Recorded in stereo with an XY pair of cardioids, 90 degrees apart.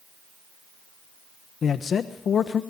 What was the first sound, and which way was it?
A man speaking, 60° left.